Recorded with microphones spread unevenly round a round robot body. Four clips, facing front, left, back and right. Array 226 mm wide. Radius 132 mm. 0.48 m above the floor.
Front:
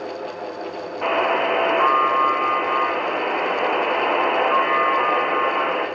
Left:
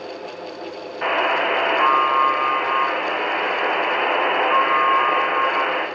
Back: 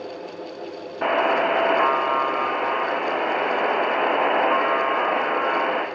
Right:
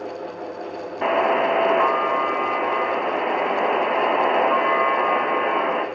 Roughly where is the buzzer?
Behind right.